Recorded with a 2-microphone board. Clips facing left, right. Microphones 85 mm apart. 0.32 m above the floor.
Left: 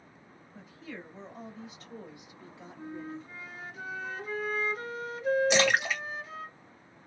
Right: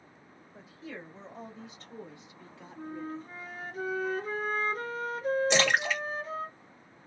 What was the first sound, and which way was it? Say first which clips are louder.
A woman speaking: right 1 dB; 15° right (ahead or behind).